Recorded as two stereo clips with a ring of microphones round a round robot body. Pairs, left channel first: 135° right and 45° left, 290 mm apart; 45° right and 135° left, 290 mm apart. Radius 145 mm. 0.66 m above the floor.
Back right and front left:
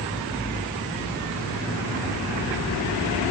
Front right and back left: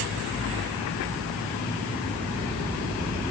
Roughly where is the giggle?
No giggle in this recording.